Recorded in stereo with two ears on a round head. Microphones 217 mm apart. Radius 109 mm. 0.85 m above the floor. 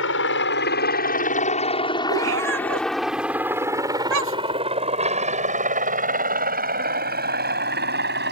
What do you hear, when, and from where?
0.0 s a helicopter: 55° left (ahead or behind); by 8.3 s 45° right (ahead or behind)
2.1 s a cat meowing: 55° right (ahead or behind)